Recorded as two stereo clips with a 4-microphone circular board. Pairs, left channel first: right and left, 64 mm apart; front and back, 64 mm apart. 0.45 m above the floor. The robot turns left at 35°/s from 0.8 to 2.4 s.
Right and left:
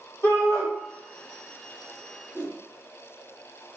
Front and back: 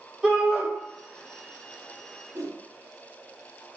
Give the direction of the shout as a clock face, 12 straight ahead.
3 o'clock.